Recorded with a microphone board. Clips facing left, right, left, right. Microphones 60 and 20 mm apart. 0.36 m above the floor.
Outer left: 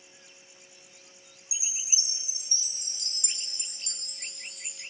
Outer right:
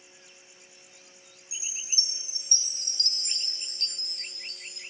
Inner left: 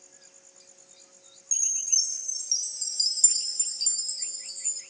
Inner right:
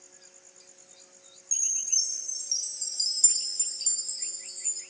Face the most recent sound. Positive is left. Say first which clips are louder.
# outer right 1 dB, inner left 2 dB
turn(degrees=15)  # may be behind; listen again after turning